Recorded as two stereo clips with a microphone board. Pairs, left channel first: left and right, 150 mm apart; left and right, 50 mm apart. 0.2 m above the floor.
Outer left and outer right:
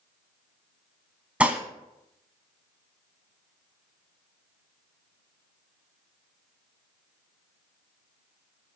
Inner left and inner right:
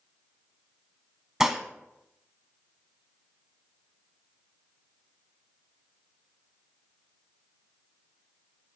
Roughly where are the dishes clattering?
Centre.